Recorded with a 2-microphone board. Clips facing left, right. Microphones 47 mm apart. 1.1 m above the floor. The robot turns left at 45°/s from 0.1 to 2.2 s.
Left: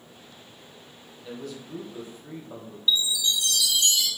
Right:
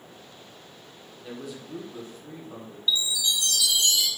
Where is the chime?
10° right (ahead or behind), 1.1 m.